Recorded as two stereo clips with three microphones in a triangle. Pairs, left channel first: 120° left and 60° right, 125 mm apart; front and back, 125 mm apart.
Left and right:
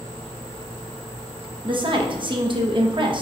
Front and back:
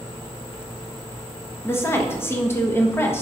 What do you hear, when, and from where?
1.6 s a woman speaking: 60° right, 0.7 m